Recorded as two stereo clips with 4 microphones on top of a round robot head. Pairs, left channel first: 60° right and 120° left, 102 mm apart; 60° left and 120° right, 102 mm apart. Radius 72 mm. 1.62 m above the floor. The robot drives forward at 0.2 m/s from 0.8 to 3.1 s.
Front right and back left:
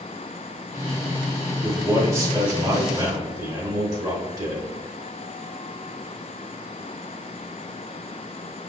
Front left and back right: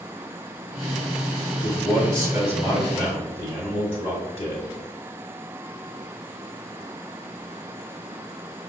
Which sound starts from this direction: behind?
A man speaking, at 1.6 s.